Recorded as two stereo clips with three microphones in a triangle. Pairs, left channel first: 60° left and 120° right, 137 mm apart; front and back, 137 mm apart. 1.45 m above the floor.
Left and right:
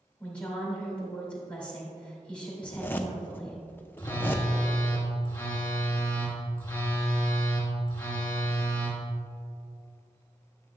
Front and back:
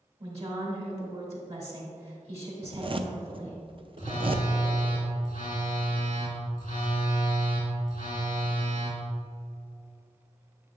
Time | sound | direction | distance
0.2 | a woman speaking | 140° left | 2.5 m
2.6 | a zipper | 135° left | 0.5 m
4.0 | a phone buzzing | 15° right | 1.9 m